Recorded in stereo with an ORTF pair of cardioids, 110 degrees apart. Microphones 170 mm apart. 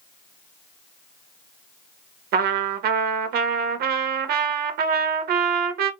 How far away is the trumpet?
About 1.0 m.